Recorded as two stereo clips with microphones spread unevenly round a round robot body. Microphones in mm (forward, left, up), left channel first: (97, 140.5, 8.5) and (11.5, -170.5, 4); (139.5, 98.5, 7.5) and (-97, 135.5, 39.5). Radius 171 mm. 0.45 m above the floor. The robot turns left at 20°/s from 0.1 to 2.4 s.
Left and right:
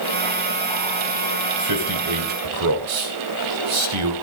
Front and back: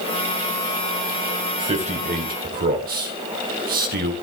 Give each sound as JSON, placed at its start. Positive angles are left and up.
{"t": 1.6, "sound": "a man speaking", "azimuth_deg": -115, "distance_m": 2.5}